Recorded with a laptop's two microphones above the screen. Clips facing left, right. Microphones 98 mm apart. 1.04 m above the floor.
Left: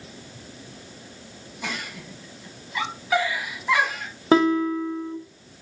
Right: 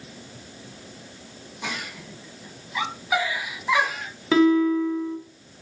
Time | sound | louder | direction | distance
1.6 | a giggle | even | 10° right (ahead or behind) | 1.2 m
4.3 | a guitar | right 1 dB | 40° left (ahead or behind) | 0.8 m